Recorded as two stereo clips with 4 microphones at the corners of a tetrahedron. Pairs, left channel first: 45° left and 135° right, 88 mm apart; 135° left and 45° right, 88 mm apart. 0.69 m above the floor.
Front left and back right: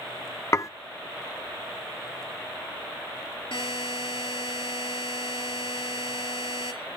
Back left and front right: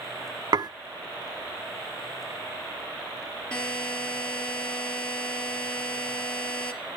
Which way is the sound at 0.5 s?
10° right.